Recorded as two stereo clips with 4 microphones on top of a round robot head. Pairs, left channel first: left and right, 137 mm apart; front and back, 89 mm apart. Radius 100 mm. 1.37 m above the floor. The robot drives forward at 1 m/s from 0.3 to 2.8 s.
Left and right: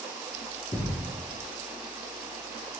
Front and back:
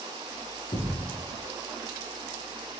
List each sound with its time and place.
0.7 s a thud: 45° left, 6 m